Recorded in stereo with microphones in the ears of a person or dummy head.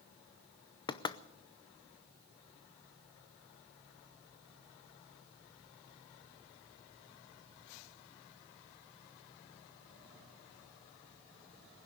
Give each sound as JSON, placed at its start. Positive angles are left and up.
{"t": 0.9, "sound": "knocking", "side_deg": 25, "distance_m": 0.6}